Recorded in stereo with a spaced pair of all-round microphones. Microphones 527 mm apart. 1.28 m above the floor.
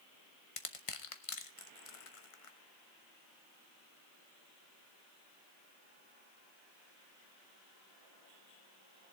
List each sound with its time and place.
0.6 s crushing: 75° left (ahead or behind), 1.1 m